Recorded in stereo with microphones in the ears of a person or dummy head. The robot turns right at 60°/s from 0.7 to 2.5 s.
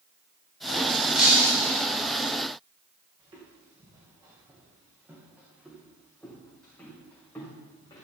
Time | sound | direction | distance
1.1 | breaking glass | straight behind | 4 m
3.2 | footsteps | 30° right (ahead or behind) | 5.5 m